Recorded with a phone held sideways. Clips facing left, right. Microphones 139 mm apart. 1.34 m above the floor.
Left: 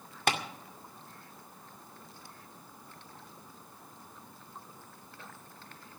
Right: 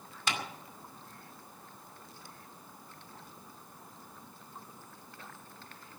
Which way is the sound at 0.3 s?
60° left (ahead or behind).